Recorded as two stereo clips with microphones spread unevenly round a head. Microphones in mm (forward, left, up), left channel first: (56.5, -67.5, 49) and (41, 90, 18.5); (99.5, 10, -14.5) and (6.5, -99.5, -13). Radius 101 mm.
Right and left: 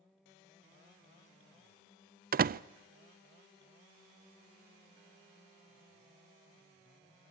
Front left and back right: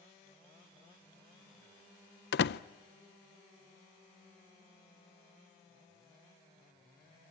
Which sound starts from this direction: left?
A door slam, at 2.3 s.